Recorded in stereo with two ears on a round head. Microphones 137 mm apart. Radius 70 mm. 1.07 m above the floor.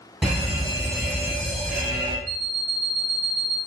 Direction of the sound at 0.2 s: 5° right (ahead or behind).